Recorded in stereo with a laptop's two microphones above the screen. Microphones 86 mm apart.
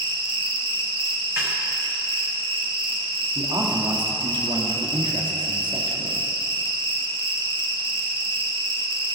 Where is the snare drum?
35° right (ahead or behind), 3 m.